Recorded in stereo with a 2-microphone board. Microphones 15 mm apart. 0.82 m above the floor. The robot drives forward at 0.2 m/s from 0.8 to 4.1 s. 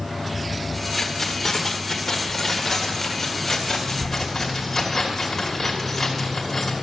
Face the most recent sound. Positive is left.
turn(degrees=10)  # may be behind; listen again after turning